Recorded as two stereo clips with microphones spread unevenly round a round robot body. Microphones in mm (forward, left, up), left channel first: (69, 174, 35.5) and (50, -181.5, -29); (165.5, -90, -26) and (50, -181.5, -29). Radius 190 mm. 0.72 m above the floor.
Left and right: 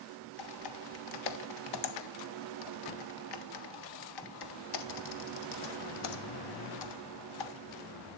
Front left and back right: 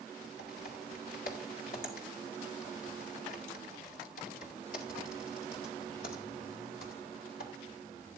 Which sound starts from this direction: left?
Typing on a keyboard, at 0.4 s.